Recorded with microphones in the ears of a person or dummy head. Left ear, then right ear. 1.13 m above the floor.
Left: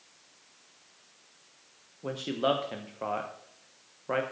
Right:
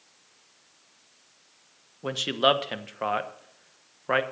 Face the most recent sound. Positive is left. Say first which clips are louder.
# right 6 dB
turn(degrees=-50)  # may be behind; listen again after turning